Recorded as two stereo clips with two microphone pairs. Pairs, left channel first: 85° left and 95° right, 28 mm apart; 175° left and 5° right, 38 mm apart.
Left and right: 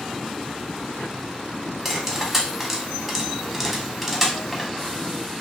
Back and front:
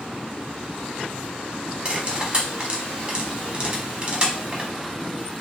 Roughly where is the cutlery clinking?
Ahead.